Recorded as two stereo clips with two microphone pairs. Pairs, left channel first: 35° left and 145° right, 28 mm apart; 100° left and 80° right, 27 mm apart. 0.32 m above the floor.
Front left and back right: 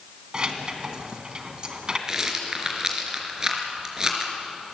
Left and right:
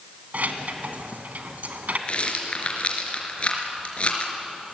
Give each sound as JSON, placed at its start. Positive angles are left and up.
{"t": 0.3, "sound": "keys jangling", "azimuth_deg": -85, "distance_m": 2.5}
{"t": 2.1, "sound": "a rattle", "azimuth_deg": 150, "distance_m": 3.5}